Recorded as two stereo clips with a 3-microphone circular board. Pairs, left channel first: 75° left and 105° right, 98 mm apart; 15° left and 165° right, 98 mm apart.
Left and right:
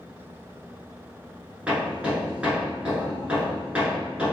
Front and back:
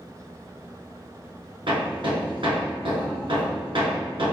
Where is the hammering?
Straight behind, 1.3 m.